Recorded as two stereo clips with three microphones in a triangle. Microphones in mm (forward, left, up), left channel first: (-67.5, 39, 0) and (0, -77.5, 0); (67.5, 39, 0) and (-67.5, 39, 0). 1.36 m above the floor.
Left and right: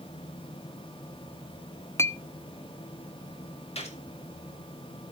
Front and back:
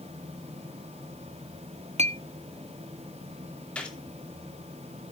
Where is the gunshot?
80° left, 2.5 m.